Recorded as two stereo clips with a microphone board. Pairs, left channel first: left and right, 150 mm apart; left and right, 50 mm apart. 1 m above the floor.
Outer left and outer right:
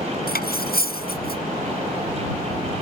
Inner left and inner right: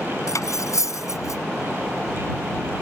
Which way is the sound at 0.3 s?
75° left (ahead or behind).